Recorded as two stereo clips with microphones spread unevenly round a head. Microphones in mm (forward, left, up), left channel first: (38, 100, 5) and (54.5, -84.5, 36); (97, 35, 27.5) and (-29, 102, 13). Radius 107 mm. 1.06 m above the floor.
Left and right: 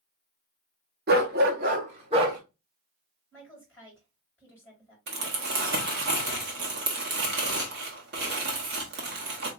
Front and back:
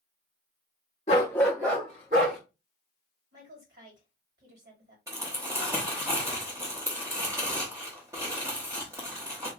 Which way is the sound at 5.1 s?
130° right.